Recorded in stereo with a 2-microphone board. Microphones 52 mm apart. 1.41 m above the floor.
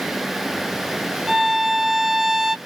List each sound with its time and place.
1.3 s a violin: 5° right (ahead or behind), 0.6 m